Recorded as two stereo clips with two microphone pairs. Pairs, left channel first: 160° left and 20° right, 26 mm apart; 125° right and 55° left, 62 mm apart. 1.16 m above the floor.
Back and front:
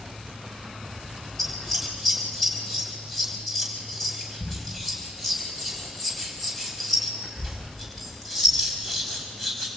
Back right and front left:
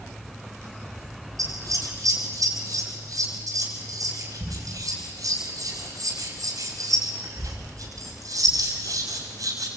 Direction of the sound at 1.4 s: 80° left.